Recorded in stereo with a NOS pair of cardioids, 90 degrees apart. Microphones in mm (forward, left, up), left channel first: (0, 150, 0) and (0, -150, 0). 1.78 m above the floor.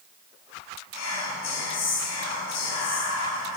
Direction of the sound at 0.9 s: 60° left.